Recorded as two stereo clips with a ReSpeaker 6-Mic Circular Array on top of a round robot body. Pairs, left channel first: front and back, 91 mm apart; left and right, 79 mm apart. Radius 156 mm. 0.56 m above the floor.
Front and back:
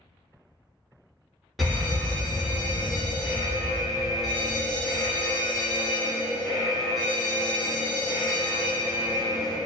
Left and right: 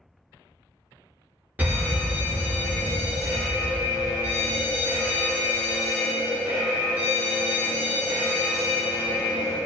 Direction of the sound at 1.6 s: 95° right.